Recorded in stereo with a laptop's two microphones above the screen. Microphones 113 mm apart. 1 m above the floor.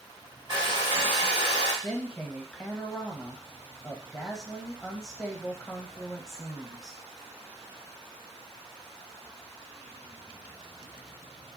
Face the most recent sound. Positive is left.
turn(degrees=0)  # may be behind; listen again after turning